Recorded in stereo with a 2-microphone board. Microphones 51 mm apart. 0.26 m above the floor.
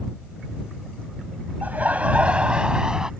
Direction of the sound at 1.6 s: 40° right (ahead or behind).